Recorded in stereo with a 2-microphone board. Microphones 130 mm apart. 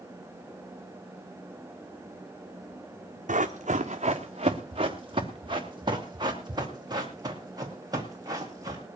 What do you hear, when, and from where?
3.3 s running footsteps: 75° right (ahead or behind), 1.4 m; by 8.8 s 25° right (ahead or behind), 5.5 m